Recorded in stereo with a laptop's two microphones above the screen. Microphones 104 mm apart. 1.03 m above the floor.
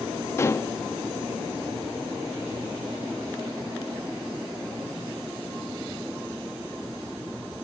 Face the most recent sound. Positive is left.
turn(degrees=25)  # may be behind; listen again after turning